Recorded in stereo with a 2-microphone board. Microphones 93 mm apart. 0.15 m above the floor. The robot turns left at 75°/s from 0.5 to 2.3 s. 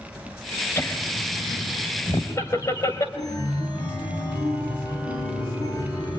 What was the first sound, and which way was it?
Laughter, 25° left (ahead or behind).